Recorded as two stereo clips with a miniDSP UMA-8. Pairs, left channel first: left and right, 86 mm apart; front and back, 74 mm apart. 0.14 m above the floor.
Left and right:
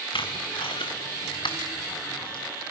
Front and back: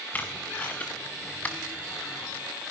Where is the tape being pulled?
70° left, 3 m.